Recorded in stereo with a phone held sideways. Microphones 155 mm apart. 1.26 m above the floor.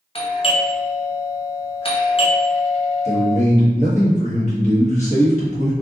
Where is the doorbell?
35° left (ahead or behind), 0.6 m.